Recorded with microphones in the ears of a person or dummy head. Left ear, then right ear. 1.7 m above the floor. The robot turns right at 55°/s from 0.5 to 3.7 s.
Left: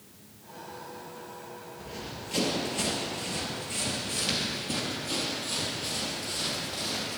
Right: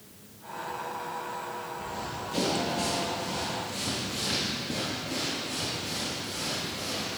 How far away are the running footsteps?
About 2 m.